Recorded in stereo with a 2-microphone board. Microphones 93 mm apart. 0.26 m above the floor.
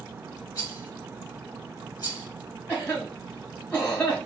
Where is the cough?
15° left (ahead or behind), 2.5 m.